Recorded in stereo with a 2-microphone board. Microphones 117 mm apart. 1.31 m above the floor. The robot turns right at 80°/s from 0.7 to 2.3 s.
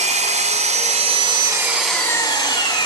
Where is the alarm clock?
No alarm clock in this recording.